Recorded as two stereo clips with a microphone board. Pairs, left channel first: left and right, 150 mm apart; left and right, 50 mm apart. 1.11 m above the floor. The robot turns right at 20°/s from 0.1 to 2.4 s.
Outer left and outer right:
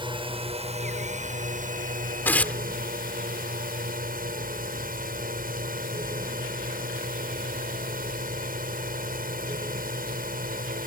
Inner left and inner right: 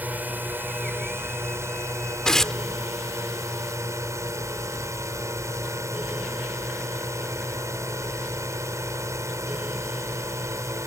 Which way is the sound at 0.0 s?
145° right.